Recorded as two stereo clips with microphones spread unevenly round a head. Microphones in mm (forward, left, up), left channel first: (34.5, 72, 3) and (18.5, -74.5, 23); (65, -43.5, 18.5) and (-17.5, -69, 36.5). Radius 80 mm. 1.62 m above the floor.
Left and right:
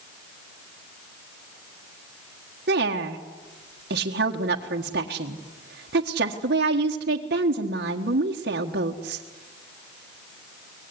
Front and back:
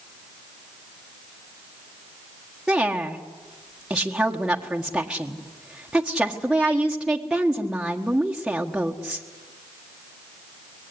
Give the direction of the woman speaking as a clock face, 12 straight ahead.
3 o'clock.